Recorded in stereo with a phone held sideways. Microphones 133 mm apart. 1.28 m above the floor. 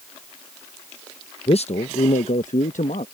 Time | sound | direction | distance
1.5 | a man speaking | 50° left (ahead or behind) | ?